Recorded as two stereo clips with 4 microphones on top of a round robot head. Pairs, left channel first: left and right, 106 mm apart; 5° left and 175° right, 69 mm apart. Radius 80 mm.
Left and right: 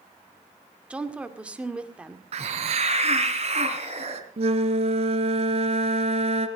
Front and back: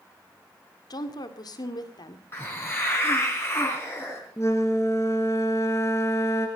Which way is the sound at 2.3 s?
65° right.